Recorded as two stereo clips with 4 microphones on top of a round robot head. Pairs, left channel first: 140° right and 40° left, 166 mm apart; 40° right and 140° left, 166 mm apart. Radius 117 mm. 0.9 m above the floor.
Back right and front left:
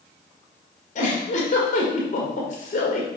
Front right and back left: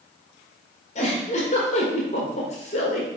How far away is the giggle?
About 1.8 m.